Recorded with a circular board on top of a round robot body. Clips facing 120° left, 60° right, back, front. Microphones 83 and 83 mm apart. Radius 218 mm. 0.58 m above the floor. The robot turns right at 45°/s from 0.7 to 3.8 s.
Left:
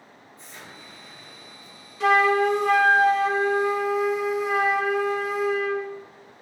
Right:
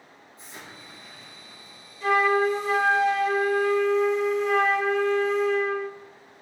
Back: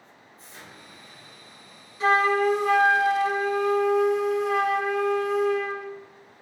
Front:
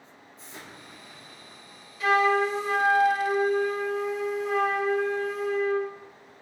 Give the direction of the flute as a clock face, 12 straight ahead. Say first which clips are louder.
Left 2 dB, back 1 dB; 8 o'clock.